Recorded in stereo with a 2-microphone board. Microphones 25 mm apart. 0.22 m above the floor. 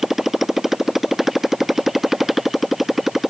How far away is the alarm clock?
No alarm clock in this recording.